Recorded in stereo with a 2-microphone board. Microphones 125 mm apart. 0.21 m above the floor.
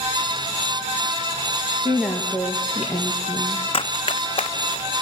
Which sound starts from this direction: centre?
A woman speaking, at 1.9 s.